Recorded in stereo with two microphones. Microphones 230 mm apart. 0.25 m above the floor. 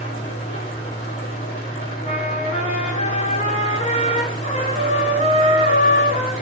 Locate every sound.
0.0 s an engine running: 60° left (ahead or behind), 1.8 m
2.0 s a trumpet: 30° left (ahead or behind), 0.7 m